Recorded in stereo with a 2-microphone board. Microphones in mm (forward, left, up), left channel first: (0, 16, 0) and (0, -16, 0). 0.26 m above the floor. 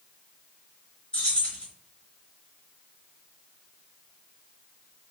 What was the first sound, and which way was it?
Keys jangling, 40° left (ahead or behind).